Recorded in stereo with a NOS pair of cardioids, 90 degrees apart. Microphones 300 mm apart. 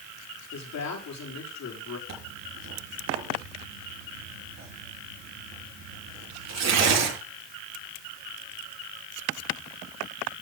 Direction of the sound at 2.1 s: 60° right.